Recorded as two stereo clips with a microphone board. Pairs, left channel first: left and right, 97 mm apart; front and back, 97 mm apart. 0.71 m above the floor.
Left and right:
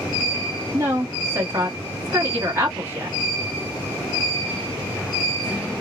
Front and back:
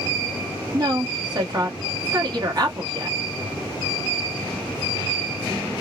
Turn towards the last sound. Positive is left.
turn(degrees=-150)